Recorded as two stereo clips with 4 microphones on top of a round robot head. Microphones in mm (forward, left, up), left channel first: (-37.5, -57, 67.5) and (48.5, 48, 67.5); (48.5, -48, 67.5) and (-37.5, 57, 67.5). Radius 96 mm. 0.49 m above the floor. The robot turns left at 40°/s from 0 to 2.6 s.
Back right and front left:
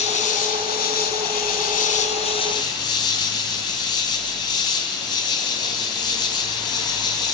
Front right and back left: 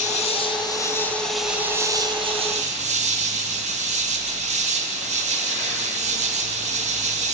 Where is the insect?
85° right, 2.5 m; by 7.3 s 170° left, 2.5 m.